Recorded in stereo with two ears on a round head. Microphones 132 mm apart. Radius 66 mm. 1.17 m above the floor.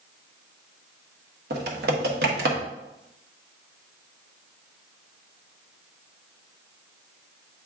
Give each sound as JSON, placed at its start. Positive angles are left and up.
{"t": 1.5, "sound": "typing on a keyboard", "side_deg": -75, "distance_m": 1.3}